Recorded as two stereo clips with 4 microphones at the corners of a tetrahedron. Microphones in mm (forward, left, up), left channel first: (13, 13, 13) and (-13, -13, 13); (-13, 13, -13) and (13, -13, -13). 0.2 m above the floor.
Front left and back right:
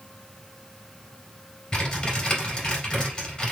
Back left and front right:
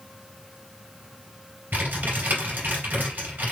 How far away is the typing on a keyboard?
About 2.5 m.